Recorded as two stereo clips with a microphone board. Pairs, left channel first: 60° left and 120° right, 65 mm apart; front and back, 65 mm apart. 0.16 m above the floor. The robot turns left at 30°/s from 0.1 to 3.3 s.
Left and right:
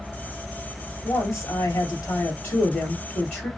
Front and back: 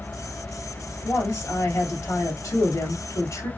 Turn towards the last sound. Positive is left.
turn(degrees=-5)